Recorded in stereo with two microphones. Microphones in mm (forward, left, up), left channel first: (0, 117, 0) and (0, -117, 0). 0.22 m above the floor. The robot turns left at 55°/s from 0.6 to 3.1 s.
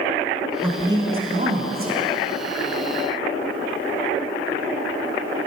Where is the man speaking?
10° right, 1.7 m; by 1.9 s 85° right, 1.7 m.